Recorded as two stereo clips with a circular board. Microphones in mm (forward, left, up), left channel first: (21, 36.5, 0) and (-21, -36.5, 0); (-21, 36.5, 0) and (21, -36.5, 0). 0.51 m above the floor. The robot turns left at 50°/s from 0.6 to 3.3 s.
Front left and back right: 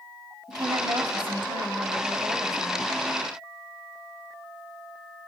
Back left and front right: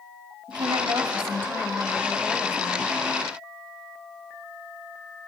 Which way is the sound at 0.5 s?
80° right.